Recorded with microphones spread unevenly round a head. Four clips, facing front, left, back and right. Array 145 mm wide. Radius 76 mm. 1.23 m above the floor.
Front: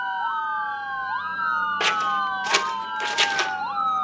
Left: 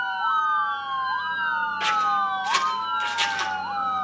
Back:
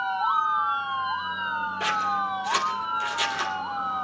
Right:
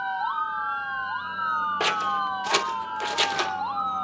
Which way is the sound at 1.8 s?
60° right.